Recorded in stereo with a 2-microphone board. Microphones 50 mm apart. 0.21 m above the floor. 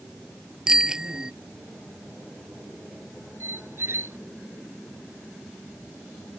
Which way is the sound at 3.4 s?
60° right (ahead or behind).